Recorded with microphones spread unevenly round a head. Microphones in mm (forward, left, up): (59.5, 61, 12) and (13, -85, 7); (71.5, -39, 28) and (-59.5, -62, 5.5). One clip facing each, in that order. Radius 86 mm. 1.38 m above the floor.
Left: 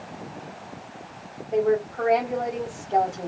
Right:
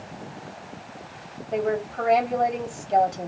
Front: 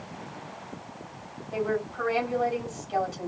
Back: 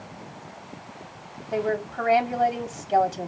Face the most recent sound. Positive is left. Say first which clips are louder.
# left 3 dB, back 3 dB
turn(degrees=-165)